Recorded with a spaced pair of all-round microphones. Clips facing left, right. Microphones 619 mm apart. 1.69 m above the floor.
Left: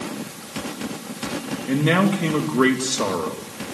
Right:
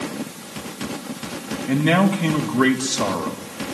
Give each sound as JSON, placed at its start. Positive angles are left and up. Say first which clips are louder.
{"t": 1.7, "sound": "a man speaking", "louder": "right 1 dB", "side_deg": -20, "distance_m": 2.5}